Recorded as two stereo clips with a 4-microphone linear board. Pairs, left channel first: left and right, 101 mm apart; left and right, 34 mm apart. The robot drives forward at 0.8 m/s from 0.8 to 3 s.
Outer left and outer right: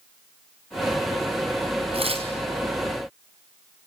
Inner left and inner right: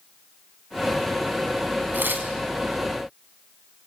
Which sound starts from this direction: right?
Tearing paper, at 1.9 s.